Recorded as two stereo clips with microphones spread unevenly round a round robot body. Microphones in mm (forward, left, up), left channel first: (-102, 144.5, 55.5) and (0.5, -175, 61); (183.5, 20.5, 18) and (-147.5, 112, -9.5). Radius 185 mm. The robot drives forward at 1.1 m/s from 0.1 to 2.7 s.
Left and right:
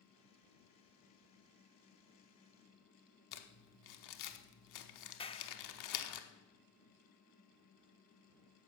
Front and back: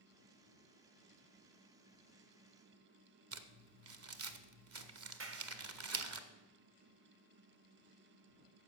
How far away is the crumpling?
About 1.0 m.